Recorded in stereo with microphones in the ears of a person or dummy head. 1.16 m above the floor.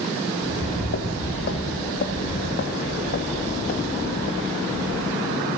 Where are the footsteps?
55° left (ahead or behind), 3 m; by 5.5 s 35° left (ahead or behind), 5 m.